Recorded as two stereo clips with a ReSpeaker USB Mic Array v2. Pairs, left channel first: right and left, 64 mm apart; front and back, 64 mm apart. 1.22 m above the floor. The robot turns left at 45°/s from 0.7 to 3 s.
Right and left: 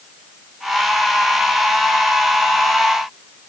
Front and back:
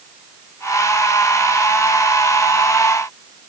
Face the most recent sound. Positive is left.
No sound to turn to.